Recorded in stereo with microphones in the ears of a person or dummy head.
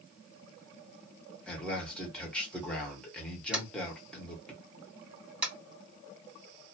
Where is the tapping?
5° right (ahead or behind), 1.8 m.